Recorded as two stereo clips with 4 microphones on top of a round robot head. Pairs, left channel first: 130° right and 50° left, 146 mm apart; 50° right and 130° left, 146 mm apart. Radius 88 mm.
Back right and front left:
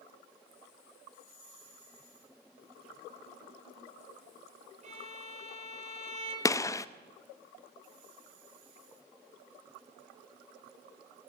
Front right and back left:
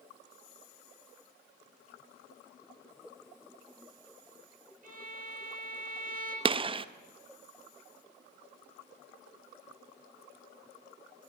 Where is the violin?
95° left, 5 m.